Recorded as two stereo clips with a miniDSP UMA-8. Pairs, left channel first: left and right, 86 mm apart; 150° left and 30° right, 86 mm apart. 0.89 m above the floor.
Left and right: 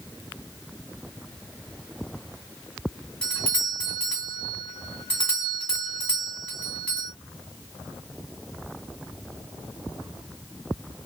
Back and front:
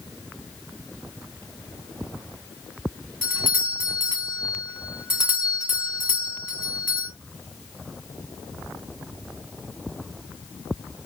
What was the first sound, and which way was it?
A doorbell, 20° left.